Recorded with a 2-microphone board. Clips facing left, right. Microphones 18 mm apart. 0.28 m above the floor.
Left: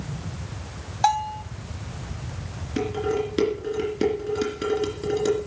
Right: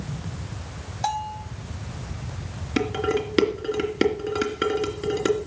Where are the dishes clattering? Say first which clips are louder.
Right 1 dB; 35° right (ahead or behind), 2.5 m.